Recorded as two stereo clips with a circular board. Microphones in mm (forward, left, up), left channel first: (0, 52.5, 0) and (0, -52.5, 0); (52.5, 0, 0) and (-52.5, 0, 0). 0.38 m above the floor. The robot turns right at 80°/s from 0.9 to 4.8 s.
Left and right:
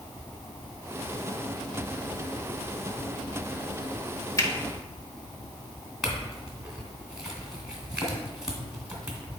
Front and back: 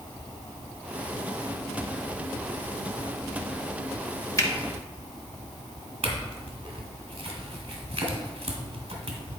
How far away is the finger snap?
About 1.1 m.